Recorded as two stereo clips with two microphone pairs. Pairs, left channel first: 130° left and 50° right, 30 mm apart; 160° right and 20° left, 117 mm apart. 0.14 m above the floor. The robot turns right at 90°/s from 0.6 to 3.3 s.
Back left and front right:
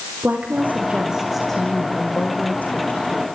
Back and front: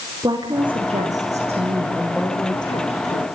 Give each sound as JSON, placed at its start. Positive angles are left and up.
{"t": 0.2, "sound": "a woman speaking", "azimuth_deg": -30, "distance_m": 9.5}